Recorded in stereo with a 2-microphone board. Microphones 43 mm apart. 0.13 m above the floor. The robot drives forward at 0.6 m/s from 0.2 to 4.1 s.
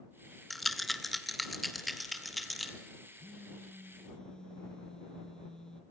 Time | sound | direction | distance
0.5 | a rattle | 5° left (ahead or behind) | 0.8 m
3.2 | a phone buzzing | 20° left (ahead or behind) | 1.9 m